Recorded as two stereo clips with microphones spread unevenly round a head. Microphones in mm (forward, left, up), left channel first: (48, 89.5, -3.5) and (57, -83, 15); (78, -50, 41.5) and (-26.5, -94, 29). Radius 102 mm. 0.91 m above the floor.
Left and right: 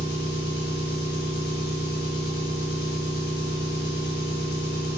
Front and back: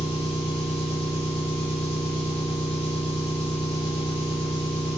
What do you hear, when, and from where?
0.0 s an engine running: 70° left, 1.3 m